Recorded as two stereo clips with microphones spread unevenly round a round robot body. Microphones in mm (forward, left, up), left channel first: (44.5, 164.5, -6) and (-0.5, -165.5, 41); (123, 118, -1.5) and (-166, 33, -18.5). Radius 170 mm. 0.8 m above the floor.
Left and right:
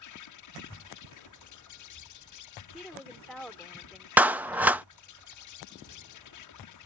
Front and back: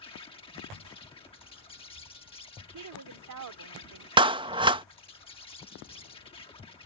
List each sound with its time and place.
0.0 s an insect: 90° left
2.7 s a woman speaking: 170° left
4.2 s a clap: 165° left